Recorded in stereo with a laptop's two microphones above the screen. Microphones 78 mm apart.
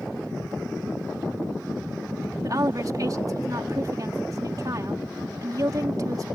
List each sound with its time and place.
2.4 s a woman speaking: 50° right (ahead or behind)